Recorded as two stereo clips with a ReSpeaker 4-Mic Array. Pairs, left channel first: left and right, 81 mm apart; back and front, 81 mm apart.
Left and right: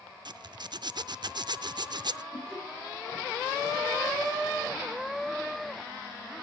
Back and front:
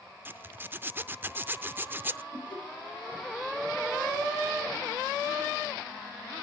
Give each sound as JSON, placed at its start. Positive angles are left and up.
{"t": 0.2, "sound": "a zipper", "azimuth_deg": -65, "distance_m": 0.5}
{"t": 2.3, "sound": "laughter", "azimuth_deg": 170, "distance_m": 3.5}